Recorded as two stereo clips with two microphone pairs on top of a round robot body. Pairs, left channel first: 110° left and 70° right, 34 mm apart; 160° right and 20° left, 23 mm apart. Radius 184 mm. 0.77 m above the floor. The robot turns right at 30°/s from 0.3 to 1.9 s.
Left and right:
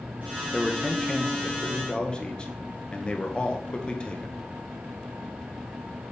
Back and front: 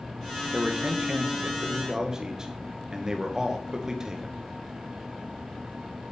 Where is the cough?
I don't hear a cough.